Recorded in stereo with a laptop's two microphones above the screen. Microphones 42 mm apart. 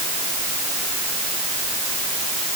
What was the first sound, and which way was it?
Only background noise.